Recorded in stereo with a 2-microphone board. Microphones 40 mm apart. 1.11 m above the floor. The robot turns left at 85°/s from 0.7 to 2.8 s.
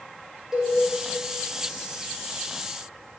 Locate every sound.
0.5 s a cowbell: 10° right (ahead or behind), 3 m; by 0.7 s 15° right (ahead or behind), 3 m